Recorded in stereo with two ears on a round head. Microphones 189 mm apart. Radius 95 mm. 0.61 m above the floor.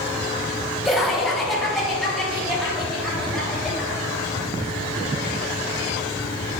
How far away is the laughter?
About 1.3 m.